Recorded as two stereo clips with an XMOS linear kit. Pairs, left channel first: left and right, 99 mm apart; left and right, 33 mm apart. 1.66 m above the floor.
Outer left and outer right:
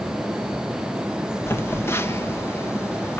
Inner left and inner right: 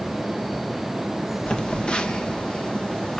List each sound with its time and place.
1.5 s a phone buzzing: 25° left (ahead or behind), 1.4 m